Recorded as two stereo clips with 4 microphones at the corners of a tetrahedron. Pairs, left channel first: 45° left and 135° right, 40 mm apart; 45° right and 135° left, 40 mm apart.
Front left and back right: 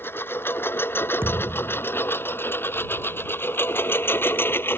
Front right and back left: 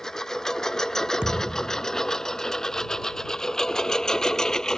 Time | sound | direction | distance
0.0 | a lawn mower | 30° left | ?
1.2 | a thud | 160° right | ?